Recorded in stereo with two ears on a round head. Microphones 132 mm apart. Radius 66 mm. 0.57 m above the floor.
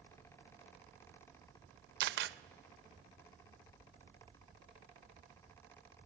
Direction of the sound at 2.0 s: 75° right (ahead or behind).